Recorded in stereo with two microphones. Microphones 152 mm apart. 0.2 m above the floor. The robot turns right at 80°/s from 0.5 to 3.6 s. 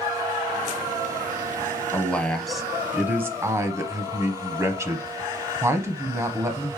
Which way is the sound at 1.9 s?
15° left (ahead or behind).